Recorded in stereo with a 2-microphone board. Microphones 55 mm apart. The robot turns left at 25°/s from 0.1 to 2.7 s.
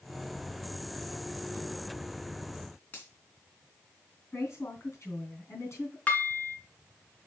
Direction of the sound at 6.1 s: 25° left (ahead or behind).